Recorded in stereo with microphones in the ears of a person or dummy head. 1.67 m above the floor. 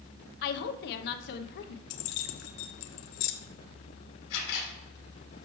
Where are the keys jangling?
45° left (ahead or behind), 0.7 m.